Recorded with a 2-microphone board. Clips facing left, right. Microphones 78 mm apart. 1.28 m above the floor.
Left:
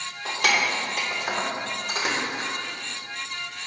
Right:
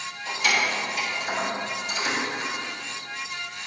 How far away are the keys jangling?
About 2.5 m.